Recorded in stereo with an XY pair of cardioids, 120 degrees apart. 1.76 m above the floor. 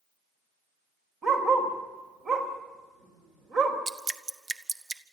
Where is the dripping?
30° right, 1.0 m.